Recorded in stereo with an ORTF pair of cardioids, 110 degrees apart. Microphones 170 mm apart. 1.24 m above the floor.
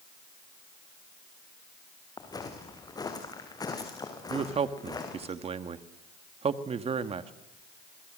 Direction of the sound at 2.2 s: 25° left.